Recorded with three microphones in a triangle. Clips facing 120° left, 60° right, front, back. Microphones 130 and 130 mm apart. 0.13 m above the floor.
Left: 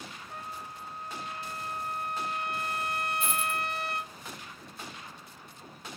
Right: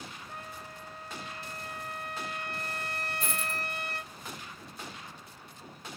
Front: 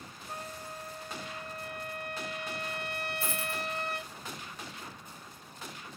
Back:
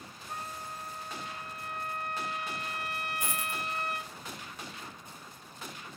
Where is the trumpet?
45° right, 1.6 m.